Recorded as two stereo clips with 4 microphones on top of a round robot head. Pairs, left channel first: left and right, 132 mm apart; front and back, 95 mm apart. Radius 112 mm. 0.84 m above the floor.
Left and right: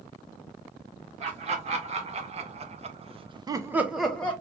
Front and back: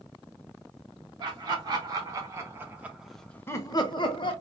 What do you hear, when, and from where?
1.2 s laughter: 130° right, 1.6 m; by 4.3 s 10° left, 0.8 m